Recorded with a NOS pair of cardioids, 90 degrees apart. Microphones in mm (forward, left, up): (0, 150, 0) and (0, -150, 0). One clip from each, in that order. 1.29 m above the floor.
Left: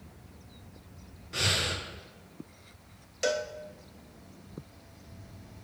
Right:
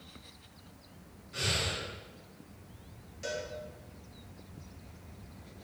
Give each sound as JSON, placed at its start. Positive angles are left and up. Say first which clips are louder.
{"t": 1.3, "sound": "breathing", "louder": "left 4 dB", "azimuth_deg": 50, "distance_m": 1.0}
{"t": 3.2, "sound": "a cowbell", "louder": "left 8 dB", "azimuth_deg": 65, "distance_m": 0.6}